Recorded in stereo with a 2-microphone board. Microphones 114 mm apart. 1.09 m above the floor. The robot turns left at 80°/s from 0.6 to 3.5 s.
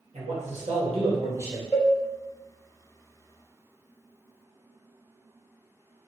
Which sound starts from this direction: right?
A man speaking, at 0.1 s.